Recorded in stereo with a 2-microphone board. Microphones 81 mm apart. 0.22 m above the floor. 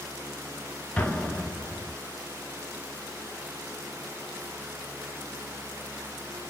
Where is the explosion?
10° left (ahead or behind), 0.9 m.